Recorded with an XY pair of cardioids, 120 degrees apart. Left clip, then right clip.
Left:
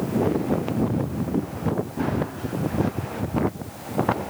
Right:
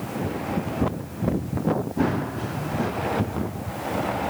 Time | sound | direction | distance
2.0 | running footsteps | 20° right | ?